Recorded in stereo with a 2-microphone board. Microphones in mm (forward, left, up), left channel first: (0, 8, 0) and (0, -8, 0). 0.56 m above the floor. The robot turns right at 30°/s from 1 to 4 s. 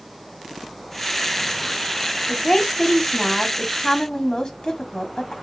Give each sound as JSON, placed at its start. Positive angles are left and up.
{"t": 2.3, "sound": "a woman speaking", "azimuth_deg": 35, "distance_m": 1.1}